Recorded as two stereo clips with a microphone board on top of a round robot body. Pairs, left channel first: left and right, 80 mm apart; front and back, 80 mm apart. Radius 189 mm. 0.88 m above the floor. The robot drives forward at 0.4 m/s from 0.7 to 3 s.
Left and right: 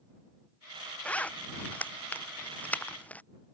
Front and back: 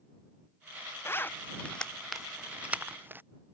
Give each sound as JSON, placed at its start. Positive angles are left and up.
{"t": 1.1, "sound": "a zipper", "azimuth_deg": 30}